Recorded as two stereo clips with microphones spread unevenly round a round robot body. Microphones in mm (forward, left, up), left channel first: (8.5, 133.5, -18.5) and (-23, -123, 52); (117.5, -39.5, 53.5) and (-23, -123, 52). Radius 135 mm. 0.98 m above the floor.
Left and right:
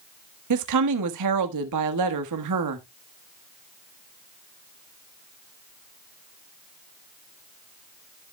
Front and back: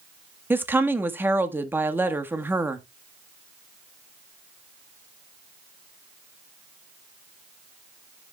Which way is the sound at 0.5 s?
70° right.